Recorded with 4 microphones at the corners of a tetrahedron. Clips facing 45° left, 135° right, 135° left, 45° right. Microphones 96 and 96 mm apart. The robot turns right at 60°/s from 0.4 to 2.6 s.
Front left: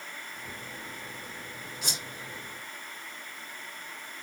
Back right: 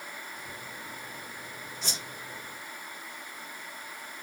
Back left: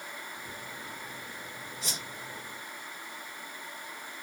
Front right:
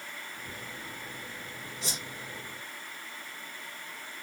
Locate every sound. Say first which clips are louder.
1.8 s a whoosh: front left 1 dB, front right 2 dB; 25° right, 1.3 m; by 2.0 s 10° right, 1.3 m